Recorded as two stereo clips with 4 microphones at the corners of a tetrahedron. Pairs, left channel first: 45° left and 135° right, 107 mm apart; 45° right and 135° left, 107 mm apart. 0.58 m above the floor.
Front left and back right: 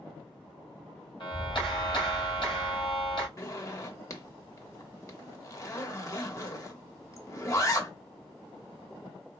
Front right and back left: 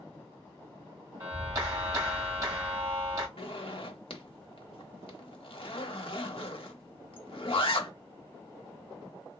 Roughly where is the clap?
Left.